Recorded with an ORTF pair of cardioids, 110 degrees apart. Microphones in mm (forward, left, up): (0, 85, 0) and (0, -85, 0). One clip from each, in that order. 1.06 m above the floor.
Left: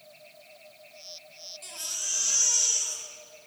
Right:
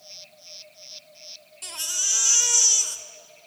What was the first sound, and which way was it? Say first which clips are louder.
A baby crying: right 7 dB; 50° right.